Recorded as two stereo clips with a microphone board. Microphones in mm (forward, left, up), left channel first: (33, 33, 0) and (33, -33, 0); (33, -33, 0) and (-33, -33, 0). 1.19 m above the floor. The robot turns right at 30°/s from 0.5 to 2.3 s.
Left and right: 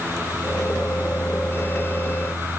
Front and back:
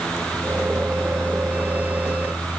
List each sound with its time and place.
Only background noise.